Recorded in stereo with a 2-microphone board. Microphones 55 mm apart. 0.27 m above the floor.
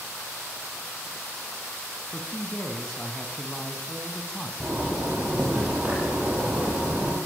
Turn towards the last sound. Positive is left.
turn(degrees=-25)  # may be behind; listen again after turning